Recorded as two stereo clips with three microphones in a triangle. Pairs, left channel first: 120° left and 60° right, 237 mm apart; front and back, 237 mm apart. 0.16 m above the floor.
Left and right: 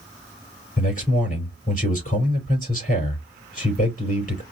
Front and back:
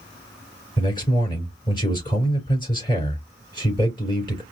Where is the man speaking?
70° left, 4 m.